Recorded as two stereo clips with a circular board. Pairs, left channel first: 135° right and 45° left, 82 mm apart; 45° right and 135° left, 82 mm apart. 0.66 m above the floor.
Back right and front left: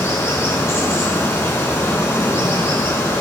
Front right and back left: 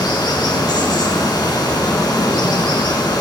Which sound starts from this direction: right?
Running water, at 0.0 s.